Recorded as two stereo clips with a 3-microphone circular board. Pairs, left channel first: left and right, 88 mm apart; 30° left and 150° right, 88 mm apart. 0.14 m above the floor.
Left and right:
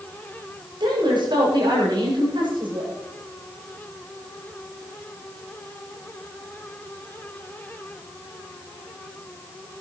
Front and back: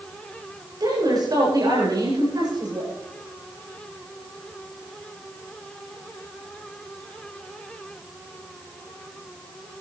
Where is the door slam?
No door slam in this recording.